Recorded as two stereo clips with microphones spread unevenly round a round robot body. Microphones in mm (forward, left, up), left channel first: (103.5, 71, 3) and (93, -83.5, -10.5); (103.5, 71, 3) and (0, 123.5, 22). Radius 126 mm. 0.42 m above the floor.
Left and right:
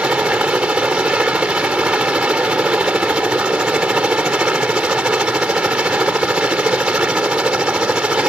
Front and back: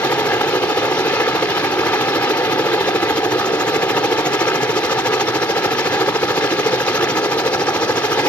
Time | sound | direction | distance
0.0 | a helicopter | 25° right | ?